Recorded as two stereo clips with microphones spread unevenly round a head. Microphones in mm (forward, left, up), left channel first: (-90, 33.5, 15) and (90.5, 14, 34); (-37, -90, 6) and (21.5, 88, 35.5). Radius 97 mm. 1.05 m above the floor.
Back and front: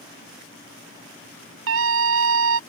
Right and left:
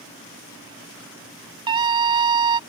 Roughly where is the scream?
Ahead.